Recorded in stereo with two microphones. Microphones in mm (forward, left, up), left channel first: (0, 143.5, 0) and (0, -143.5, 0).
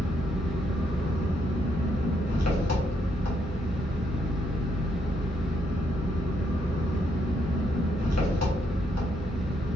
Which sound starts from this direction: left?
An engine running, at 0.0 s.